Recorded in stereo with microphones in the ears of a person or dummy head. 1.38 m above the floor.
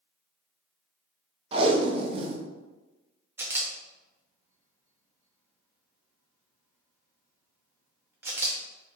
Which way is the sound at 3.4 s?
20° right (ahead or behind).